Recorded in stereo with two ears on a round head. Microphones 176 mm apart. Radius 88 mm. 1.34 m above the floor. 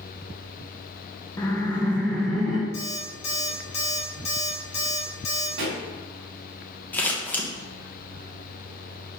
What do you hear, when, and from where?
1.4 s laughter: 15° left (ahead or behind), 1.0 m; by 2.6 s centre (ahead or behind), 1.7 m
2.7 s an alarm clock: 35° left (ahead or behind), 3 m
5.6 s a pop: 65° right (ahead or behind), 2.5 m
6.9 s scissors: 10° left (ahead or behind), 1.3 m